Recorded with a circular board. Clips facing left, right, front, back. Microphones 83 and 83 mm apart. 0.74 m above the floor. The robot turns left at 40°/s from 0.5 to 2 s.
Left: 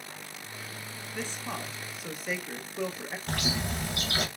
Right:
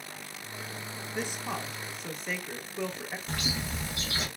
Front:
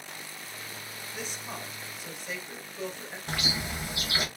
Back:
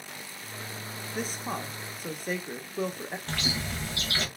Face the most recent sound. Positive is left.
turn(degrees=75)